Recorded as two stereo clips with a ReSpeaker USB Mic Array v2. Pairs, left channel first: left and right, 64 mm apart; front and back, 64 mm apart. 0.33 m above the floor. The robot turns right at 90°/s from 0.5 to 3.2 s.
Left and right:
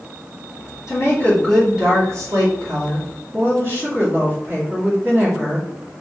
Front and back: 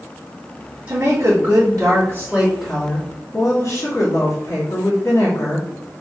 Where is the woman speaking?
115° left, 2 m; by 5.7 s 35° right, 2 m.